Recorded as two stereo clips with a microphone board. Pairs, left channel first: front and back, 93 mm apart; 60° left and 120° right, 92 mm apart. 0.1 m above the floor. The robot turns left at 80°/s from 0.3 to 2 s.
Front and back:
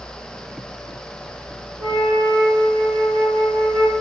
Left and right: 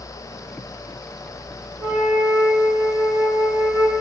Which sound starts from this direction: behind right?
A flute, at 1.8 s.